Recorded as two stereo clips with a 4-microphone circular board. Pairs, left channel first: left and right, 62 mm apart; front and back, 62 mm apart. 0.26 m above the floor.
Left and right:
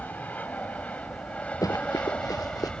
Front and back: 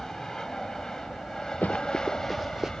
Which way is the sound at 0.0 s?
70° left.